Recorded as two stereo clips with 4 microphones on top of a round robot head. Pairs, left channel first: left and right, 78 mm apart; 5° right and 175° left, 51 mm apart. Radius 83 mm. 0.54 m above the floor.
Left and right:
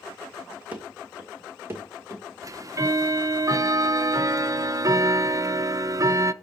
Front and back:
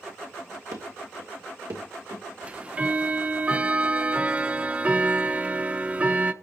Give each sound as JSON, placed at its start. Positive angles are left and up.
{"t": 0.7, "sound": "running footsteps", "azimuth_deg": -160, "distance_m": 1.8}
{"t": 2.4, "sound": "ticking", "azimuth_deg": -125, "distance_m": 0.9}